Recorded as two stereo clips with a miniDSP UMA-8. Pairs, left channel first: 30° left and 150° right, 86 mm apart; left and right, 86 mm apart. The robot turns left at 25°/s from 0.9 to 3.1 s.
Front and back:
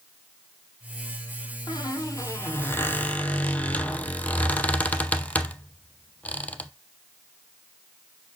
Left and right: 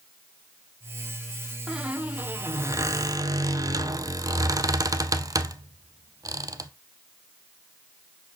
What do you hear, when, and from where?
1.7 s a squeak: 10° right, 0.6 m; by 6.7 s 45° right, 0.6 m